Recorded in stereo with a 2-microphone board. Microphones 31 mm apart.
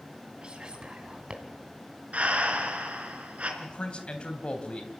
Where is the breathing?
45° right (ahead or behind), 3.5 m.